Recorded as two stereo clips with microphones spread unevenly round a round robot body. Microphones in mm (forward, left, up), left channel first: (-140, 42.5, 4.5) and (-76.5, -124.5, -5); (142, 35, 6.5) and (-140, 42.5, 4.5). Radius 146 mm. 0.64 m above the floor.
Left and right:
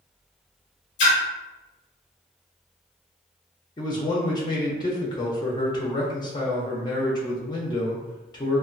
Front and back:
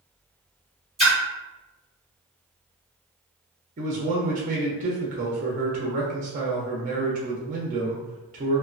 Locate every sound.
1.0 s a splash: 90° left, 1.1 m
3.8 s a man speaking: 160° left, 0.6 m